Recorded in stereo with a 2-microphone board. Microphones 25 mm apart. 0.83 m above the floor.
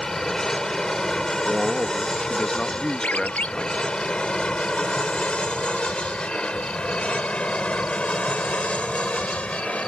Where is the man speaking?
35° left (ahead or behind).